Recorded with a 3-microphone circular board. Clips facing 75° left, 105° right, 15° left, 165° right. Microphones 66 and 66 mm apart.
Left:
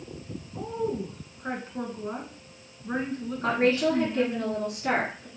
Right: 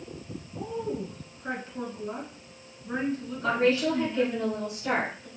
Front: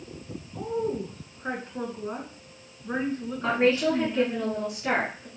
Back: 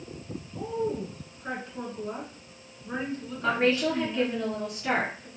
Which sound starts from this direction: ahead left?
A woman speaking, at 0.5 s.